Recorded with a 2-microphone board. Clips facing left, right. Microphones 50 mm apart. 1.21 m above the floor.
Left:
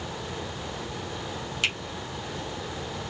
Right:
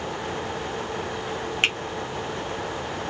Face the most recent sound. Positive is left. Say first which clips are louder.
# right 4 dB
turn(degrees=-40)  # may be behind; listen again after turning